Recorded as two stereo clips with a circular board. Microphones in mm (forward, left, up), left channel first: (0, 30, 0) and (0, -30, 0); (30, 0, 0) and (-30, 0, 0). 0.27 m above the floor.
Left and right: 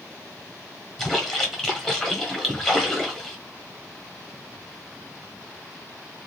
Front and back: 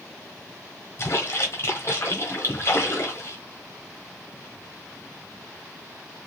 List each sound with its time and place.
1.0 s a splash: 15° left, 1.5 m